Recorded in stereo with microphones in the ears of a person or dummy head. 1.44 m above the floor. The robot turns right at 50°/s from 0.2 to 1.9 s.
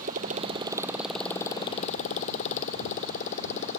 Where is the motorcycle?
45° right (ahead or behind); by 3.8 s 45° left (ahead or behind).